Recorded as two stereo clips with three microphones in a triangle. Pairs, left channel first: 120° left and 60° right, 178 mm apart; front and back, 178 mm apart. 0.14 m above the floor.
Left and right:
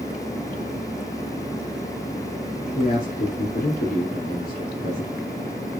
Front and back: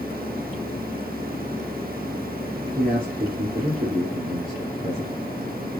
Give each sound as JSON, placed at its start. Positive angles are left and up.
{"t": 2.8, "sound": "a man speaking", "azimuth_deg": 145, "distance_m": 3.5}